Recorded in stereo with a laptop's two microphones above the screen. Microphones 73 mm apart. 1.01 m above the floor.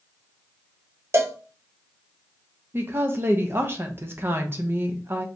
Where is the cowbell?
40° right (ahead or behind), 0.5 m.